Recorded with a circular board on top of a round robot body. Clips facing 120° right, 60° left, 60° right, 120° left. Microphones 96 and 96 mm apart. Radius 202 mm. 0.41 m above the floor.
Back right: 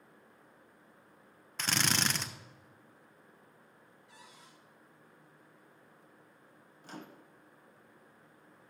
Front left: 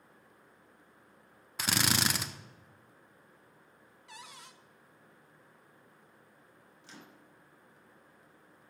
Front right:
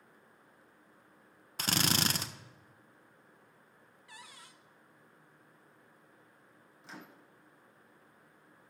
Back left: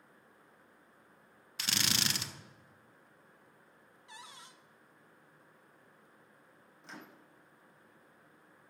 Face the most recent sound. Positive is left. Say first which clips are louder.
# back right 6 dB, even
turn(degrees=-145)